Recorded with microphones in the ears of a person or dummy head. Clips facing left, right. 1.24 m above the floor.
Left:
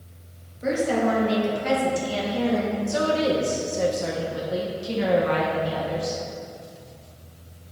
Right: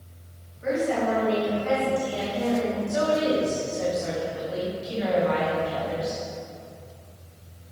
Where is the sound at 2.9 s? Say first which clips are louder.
Left 1 dB; 55° left (ahead or behind), 1.4 m.